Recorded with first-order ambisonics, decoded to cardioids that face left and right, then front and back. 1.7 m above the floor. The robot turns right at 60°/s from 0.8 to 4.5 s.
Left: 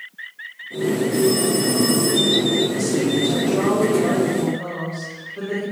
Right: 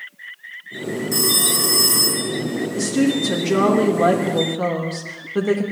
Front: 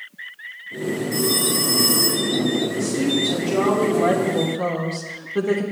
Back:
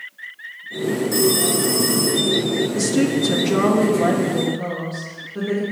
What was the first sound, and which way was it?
A phone ringing, 120° right.